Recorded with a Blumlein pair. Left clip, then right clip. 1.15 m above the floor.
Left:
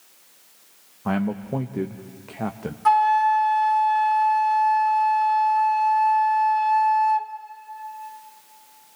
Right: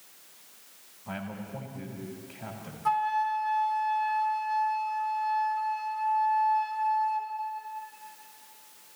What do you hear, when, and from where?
1.1 s a man speaking: 40° left, 1.2 m
2.9 s a flute: 25° left, 1.4 m